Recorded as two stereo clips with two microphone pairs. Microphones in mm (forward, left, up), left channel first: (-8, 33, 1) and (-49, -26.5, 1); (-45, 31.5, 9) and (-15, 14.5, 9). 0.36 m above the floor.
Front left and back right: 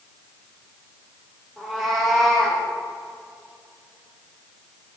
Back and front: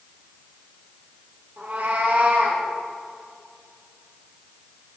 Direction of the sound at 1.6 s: 35° right.